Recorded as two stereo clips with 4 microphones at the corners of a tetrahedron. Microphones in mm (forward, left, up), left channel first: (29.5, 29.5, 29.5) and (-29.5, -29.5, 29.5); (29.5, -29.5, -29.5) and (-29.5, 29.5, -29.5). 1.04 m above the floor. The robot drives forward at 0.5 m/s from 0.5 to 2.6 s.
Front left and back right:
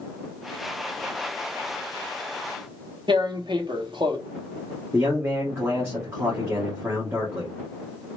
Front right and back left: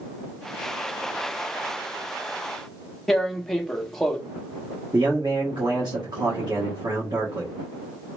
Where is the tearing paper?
135° right, 0.8 m.